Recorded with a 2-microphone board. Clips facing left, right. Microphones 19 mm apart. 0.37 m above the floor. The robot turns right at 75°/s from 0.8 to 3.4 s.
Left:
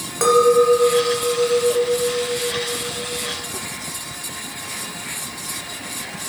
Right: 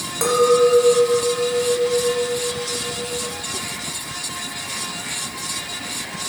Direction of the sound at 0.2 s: 15° left.